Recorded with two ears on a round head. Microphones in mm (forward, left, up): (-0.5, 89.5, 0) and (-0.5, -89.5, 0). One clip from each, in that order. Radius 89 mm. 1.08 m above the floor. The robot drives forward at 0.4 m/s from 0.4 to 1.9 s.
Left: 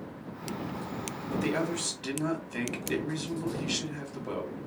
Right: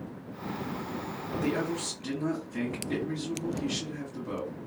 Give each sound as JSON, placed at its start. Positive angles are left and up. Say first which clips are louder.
{"t": 1.3, "sound": "a man speaking", "louder": "left 1 dB", "side_deg": 75, "distance_m": 1.6}